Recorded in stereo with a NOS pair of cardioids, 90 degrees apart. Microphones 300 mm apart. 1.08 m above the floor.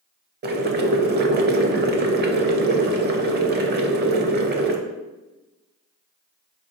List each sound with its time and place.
0.4 s boiling: 35° right, 0.6 m